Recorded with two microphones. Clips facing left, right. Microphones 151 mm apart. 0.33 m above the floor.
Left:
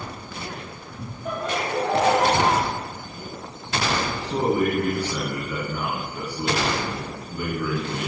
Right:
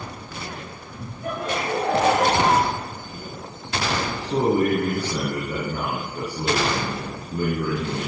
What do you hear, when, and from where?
1.2 s laughter: 70° right (ahead or behind), 5.5 m; by 2.7 s 80° right, 5.5 m
4.2 s a man speaking: 30° right (ahead or behind), 4 m